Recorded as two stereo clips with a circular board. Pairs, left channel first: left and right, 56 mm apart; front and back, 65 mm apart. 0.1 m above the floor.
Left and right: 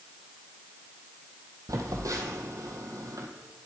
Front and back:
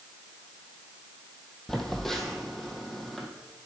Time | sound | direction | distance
1.7 | a phone buzzing | 85° right | 1.4 m